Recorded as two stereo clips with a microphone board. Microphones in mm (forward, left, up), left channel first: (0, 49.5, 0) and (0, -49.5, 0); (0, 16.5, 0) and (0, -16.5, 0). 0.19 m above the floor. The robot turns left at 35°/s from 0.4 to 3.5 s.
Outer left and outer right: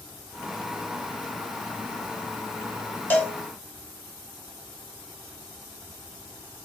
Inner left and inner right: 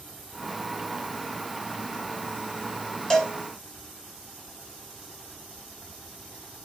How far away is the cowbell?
About 0.8 m.